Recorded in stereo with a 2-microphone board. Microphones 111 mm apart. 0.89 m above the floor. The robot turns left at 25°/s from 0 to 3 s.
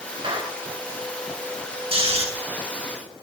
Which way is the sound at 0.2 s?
50° right (ahead or behind).